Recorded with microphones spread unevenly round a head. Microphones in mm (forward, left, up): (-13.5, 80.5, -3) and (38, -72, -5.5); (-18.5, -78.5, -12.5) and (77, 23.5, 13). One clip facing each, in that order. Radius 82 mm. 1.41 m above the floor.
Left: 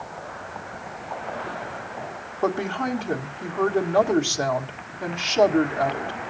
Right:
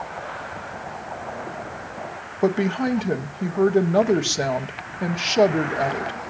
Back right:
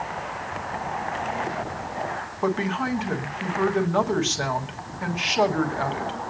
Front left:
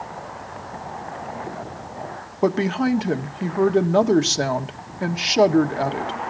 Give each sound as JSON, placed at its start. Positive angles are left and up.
{"t": 2.4, "sound": "a woman speaking", "azimuth_deg": 0, "distance_m": 1.5}